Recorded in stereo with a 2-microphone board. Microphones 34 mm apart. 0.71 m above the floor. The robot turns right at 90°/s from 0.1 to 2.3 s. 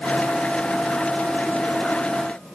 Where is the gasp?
I don't hear a gasp.